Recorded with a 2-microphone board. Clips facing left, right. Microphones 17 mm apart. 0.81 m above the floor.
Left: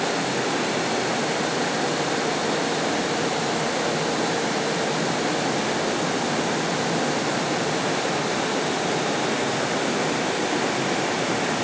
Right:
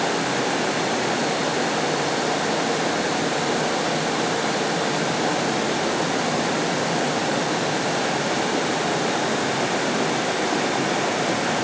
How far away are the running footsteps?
No running footsteps in this recording.